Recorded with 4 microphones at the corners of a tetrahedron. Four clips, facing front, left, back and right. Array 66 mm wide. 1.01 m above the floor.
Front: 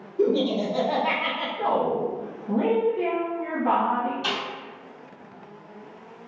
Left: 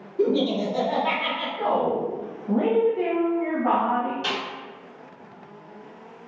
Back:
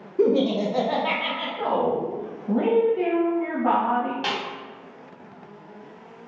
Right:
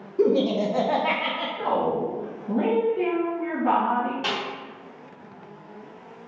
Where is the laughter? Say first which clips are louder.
Right 1 dB, back 2 dB; 155° right, 0.6 m; by 1.5 s 35° right, 0.6 m.